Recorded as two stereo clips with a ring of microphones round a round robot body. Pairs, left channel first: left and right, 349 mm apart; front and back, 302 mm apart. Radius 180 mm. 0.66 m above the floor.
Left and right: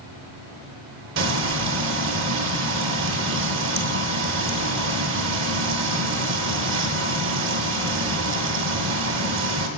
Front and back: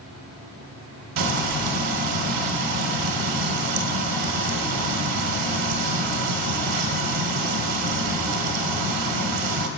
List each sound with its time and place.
1.2 s frying: 150° right, 1.0 m